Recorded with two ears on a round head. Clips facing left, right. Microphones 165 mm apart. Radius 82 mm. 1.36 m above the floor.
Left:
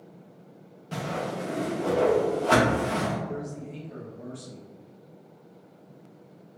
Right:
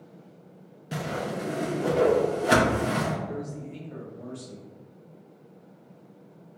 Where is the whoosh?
15° right (ahead or behind), 0.6 m.